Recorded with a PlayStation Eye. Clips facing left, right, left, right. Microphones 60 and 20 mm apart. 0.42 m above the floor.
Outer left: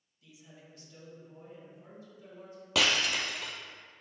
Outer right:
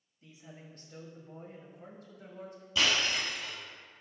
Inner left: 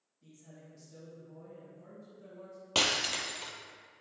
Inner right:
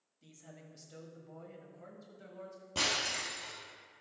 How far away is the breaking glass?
About 1.4 m.